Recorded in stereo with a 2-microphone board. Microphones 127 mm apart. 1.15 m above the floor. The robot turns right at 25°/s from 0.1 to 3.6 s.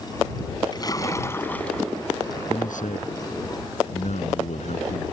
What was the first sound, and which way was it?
A splash, 145° left.